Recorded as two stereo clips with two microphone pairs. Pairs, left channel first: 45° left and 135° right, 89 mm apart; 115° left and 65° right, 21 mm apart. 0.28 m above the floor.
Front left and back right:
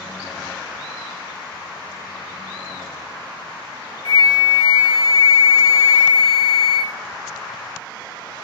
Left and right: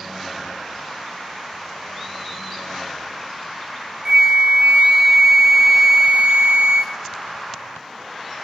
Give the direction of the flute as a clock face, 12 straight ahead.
4 o'clock.